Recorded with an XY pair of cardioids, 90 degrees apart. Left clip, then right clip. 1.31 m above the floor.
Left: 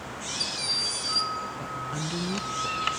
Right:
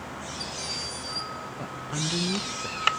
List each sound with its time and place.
1.6 s a woman speaking: 20° right, 0.7 m